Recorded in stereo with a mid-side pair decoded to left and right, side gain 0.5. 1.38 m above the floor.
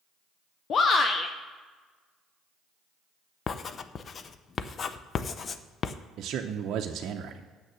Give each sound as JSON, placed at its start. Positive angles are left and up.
{"t": 0.7, "sound": "a shout", "azimuth_deg": 50, "distance_m": 0.6}
{"t": 3.5, "sound": "writing", "azimuth_deg": 45, "distance_m": 0.6}
{"t": 6.2, "sound": "a man speaking", "azimuth_deg": -65, "distance_m": 0.6}